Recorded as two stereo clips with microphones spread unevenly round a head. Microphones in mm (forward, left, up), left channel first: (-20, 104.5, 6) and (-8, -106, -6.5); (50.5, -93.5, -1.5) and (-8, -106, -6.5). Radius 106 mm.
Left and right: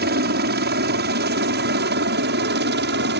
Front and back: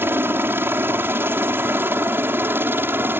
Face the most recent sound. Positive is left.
turn(degrees=-120)